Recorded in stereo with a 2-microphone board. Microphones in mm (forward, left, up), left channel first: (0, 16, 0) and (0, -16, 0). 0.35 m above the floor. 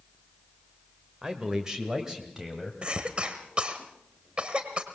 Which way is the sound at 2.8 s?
35° right (ahead or behind).